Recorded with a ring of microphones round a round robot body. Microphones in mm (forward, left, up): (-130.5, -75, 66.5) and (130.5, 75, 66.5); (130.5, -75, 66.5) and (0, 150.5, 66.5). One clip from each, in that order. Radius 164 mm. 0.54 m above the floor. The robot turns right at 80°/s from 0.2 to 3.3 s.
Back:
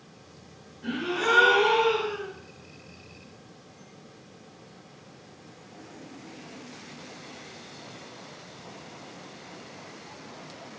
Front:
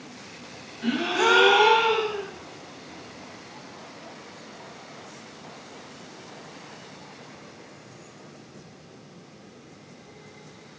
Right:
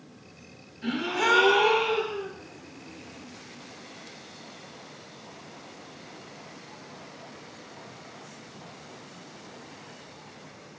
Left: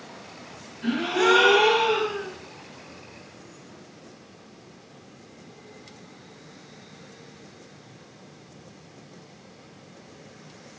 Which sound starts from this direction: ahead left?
A gasp, at 0.8 s.